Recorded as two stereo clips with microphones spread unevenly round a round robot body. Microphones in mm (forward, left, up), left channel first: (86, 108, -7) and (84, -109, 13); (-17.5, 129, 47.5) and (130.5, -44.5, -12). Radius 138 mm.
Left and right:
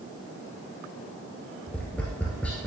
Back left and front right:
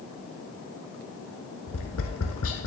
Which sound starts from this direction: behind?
Tapping, at 1.7 s.